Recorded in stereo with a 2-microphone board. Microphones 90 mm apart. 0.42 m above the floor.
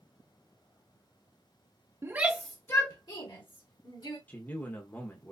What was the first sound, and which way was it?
A shout, 30° right (ahead or behind).